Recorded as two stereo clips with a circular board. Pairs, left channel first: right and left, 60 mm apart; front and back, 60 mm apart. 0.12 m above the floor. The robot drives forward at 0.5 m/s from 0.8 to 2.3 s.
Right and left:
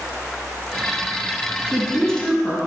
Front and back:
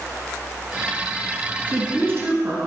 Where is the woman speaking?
160° right, 1.7 m; by 2.6 s 165° right, 1.9 m.